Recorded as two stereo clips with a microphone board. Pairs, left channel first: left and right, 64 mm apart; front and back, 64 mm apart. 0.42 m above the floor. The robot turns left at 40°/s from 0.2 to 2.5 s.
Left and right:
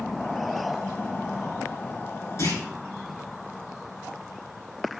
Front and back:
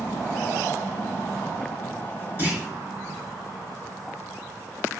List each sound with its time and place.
2.4 s a clunk: 130° left, 3 m; by 2.6 s 125° left, 3 m